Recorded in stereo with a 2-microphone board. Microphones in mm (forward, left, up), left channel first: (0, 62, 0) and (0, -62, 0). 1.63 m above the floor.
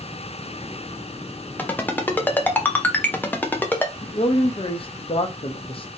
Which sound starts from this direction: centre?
A ringtone, at 1.6 s.